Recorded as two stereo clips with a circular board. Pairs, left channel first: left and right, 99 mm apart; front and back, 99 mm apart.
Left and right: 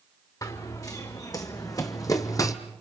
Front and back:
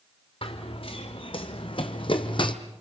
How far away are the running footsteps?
About 2.5 m.